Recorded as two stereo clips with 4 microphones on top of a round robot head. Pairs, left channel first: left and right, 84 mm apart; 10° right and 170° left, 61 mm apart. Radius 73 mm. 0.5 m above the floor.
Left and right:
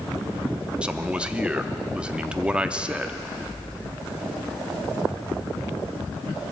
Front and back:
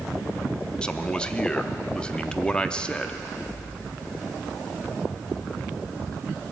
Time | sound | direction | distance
0.8 | a man speaking | 40° right | 0.7 m